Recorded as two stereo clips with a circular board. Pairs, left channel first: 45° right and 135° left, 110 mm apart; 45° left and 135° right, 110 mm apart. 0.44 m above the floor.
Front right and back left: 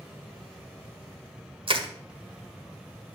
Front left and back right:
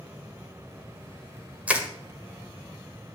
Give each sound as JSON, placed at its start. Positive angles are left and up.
{"t": 1.7, "sound": "crushing", "azimuth_deg": 150, "distance_m": 1.5}